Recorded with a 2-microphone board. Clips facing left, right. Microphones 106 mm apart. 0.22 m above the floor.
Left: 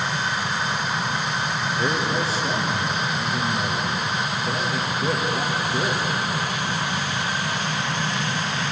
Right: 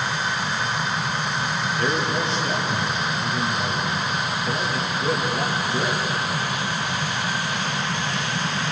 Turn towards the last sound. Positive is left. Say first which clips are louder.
# even
turn(degrees=5)  # may be behind; listen again after turning